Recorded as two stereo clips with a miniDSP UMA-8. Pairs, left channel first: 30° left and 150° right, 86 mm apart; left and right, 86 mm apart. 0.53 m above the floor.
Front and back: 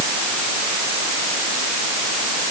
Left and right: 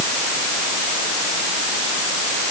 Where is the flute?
No flute in this recording.